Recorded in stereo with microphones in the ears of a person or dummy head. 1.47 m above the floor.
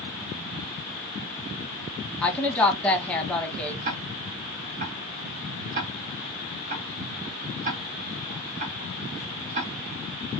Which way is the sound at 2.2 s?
5° left (ahead or behind).